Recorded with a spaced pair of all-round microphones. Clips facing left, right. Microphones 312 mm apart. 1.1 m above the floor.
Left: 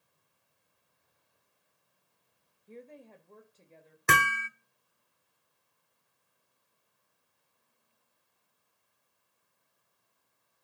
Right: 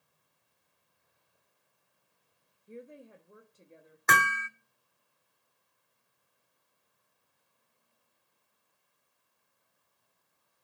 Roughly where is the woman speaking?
Centre.